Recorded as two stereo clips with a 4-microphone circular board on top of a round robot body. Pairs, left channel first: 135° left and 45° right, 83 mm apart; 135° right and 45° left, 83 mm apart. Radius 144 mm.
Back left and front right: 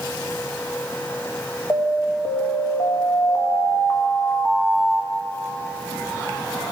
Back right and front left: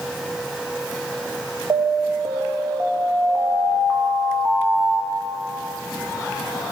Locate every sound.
1.7 s an alarm: 90° left, 3 m